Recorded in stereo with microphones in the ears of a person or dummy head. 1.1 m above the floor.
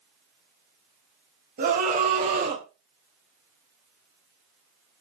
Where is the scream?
45° right (ahead or behind), 3.5 m; by 2.6 s 40° right (ahead or behind), 3 m.